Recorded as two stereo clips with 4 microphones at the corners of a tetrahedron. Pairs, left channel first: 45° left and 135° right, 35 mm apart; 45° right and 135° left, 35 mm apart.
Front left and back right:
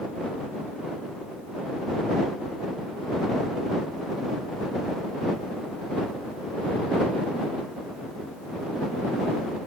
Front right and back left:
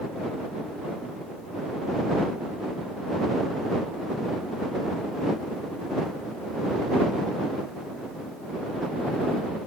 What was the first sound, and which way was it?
Only background noise.